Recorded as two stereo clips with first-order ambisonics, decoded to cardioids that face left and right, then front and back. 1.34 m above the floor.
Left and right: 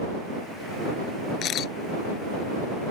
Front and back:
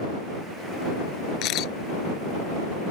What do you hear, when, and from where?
1.4 s a camera shutter: 40° left